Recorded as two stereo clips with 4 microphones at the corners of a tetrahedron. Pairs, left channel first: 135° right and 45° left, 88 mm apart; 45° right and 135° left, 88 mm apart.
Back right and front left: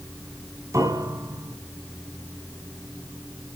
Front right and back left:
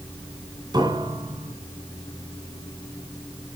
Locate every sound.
0.7 s a piano: 100° left, 2.5 m